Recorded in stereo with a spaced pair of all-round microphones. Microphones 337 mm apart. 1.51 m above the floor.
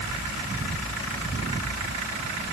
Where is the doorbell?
I don't hear a doorbell.